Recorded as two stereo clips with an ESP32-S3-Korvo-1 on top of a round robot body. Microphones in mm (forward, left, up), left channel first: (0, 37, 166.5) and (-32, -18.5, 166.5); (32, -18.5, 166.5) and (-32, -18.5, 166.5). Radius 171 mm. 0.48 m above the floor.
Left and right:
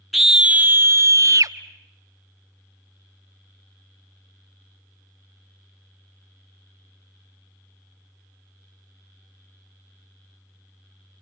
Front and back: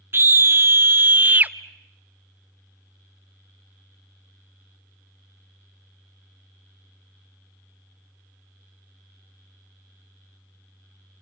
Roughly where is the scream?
Behind left.